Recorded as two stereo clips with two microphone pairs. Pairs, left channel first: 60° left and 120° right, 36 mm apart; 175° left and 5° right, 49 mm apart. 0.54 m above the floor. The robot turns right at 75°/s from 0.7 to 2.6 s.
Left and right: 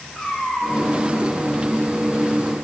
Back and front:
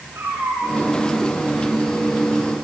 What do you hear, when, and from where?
0.1 s a cat meowing: 40° right, 9.5 m; by 0.8 s 25° right, 9.5 m